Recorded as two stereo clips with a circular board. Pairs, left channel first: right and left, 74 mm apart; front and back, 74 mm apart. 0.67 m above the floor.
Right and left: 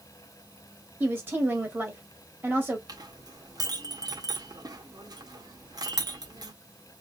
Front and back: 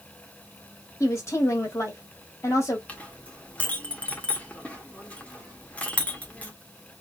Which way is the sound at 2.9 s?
70° left.